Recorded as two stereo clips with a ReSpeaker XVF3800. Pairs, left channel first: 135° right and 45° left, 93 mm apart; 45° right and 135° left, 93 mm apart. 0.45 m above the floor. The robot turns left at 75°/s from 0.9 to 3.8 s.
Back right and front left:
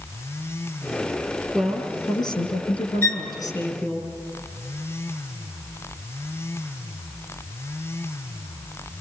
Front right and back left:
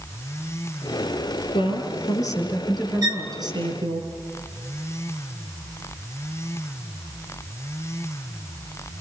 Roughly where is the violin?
Behind.